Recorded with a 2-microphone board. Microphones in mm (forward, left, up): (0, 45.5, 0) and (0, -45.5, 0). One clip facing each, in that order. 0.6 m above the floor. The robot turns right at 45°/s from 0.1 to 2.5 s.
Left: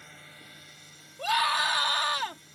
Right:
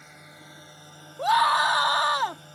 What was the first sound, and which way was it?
A drone, 170° right.